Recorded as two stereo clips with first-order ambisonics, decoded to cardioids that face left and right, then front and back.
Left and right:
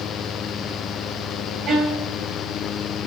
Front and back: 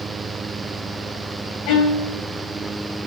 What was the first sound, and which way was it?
A violin, 25° right.